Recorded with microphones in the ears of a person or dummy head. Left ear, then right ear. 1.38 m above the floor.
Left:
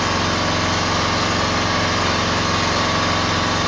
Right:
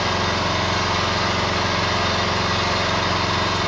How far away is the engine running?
About 0.8 m.